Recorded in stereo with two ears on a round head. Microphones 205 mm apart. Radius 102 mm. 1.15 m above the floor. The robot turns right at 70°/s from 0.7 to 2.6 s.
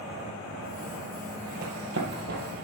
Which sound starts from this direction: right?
Running footsteps, at 1.6 s.